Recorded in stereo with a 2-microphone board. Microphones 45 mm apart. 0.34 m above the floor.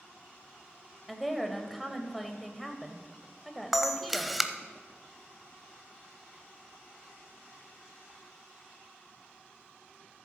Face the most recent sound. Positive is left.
turn(degrees=-5)  # may be behind; listen again after turning